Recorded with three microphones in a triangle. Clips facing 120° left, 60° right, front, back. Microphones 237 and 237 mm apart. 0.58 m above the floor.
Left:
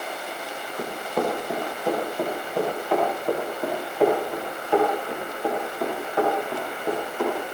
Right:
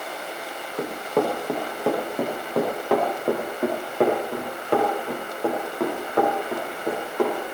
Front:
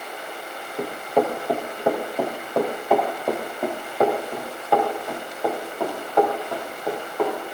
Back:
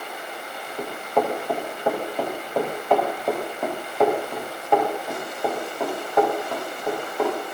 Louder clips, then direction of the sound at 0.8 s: Right 3 dB, front 2 dB; 75° right.